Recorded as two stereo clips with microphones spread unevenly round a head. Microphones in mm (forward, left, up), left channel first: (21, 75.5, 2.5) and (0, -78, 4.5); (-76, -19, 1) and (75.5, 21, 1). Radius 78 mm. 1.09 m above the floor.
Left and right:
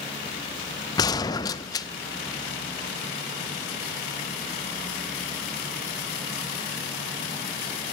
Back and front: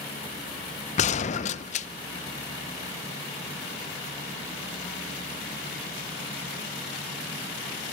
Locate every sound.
1.0 s a gunshot: 150° left, 0.5 m